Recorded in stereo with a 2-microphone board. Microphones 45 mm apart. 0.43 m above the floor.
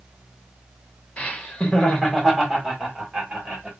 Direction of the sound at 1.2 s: 30° left (ahead or behind).